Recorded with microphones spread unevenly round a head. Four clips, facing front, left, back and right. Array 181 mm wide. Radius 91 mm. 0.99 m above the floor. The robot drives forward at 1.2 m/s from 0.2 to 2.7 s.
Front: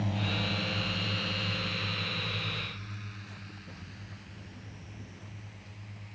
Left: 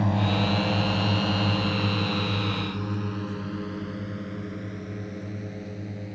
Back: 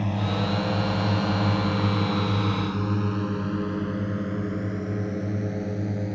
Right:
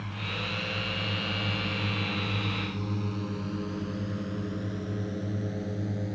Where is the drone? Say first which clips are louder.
Left 12 dB, back 7 dB; 115° left; by 6.2 s 170° right.